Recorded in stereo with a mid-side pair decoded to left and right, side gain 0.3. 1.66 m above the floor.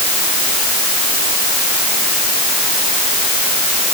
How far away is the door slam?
No door slam in this recording.